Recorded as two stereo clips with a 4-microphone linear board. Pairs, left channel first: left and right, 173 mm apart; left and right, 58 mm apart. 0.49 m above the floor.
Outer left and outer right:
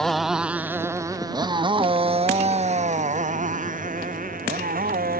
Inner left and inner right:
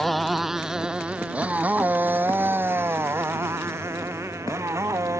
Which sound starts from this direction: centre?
A motorcycle, at 0.0 s.